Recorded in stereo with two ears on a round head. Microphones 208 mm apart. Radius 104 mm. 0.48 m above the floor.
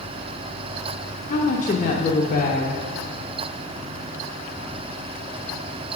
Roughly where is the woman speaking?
Left.